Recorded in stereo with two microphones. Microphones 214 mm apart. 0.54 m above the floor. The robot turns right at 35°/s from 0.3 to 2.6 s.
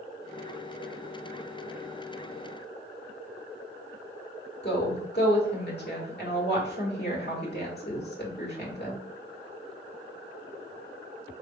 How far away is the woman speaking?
About 1.8 m.